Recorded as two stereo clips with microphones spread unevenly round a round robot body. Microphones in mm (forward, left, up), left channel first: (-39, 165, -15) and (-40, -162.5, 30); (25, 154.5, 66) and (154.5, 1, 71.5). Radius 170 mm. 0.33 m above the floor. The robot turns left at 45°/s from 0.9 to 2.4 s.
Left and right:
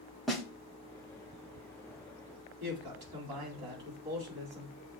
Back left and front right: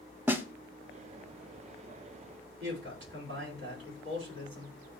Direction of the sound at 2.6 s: 75° right.